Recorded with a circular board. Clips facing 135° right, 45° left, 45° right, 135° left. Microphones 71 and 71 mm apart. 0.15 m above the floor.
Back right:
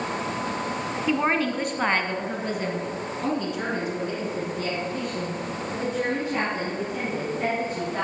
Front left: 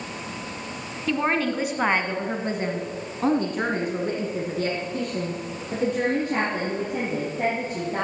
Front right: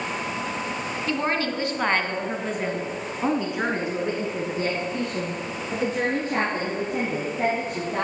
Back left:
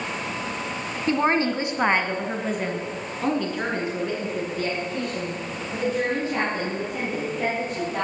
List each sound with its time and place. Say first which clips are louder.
1.1 s a woman speaking: even, back left 5 dB; 150° left, 1.2 m; by 8.1 s 5° left, 3.5 m